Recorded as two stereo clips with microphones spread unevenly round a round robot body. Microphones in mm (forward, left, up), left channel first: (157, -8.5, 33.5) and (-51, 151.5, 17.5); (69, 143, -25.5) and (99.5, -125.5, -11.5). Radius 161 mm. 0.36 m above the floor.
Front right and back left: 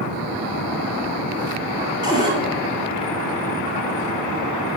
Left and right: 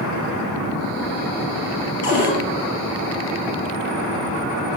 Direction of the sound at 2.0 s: 65° left.